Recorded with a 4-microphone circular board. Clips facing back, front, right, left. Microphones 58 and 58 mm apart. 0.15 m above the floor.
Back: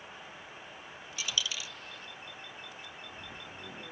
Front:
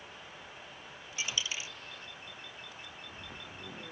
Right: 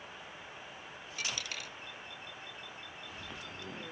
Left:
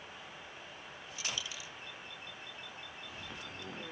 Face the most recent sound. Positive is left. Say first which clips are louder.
# back 1 dB, right 2 dB
turn(degrees=-60)